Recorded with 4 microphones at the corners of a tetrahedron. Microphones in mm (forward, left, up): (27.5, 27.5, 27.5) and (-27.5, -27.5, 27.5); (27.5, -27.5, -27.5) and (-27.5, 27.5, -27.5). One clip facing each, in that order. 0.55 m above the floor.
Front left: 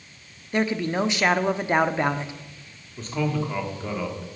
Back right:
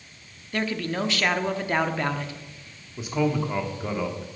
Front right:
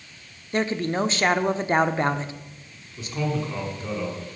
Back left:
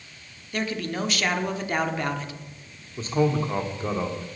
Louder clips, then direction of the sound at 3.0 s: Back right 2 dB, back left 5 dB; 150° left.